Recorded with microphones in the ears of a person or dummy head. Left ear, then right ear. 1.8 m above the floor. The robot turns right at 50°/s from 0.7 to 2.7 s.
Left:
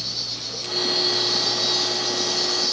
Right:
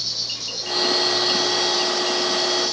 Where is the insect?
10° right, 2.5 m; by 2.7 s 90° left, 2.5 m.